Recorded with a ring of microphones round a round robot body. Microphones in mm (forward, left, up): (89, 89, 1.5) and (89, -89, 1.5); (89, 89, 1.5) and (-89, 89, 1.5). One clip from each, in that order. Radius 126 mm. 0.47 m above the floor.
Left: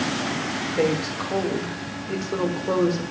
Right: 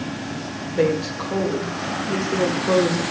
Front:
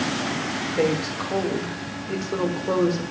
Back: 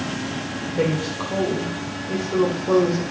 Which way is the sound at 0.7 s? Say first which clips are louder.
Right 4 dB, even; 10° left.